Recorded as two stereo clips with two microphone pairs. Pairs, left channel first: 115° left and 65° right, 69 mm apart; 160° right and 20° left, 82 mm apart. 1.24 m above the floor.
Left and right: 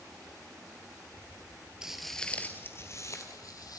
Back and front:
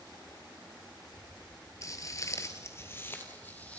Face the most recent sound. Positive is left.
turn(degrees=130)